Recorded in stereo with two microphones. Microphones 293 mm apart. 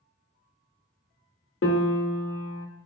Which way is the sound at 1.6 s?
50° left (ahead or behind).